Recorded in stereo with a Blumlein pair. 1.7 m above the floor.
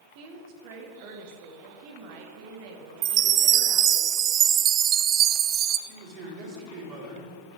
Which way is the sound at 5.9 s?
45° right.